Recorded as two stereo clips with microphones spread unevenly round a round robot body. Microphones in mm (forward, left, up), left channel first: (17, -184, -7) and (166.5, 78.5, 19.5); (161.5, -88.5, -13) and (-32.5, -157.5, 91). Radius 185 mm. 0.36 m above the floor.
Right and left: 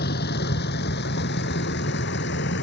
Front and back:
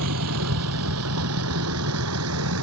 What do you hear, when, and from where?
0.0 s a vehicle: 175° left; by 2.6 s straight behind